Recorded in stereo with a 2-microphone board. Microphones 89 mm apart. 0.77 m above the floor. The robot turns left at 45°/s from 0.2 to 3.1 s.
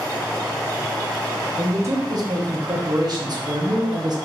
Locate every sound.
1.6 s a man speaking: 35° right, 1.0 m; by 4.2 s 105° right, 1.0 m